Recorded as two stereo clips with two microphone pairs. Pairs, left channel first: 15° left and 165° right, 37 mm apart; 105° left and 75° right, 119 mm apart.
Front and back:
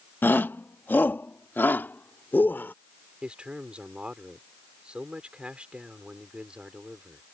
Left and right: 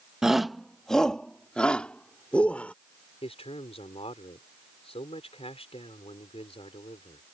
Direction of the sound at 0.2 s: 10° left.